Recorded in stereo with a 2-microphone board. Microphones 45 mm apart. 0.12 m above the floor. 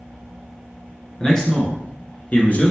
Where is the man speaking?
15° left (ahead or behind), 1.7 m; by 2.7 s 35° left (ahead or behind), 1.5 m.